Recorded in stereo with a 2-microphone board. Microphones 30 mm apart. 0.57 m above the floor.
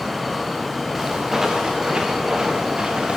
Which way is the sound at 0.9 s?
15° right (ahead or behind).